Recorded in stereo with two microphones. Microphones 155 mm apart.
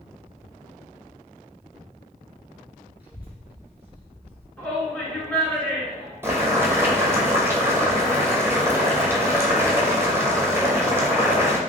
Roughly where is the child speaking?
Centre.